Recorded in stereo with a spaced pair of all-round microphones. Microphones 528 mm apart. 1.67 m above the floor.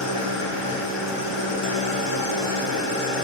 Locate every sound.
0.0 s an engine running: 75° left (ahead or behind), 0.9 m